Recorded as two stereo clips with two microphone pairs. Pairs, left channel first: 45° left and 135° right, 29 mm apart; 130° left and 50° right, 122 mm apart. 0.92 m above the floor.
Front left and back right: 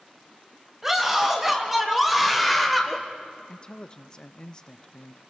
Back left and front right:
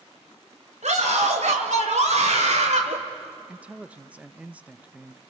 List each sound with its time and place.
0.8 s a scream: 55° right, 4 m; by 3.0 s 40° right, 2.5 m
3.5 s a man speaking: 20° left, 0.6 m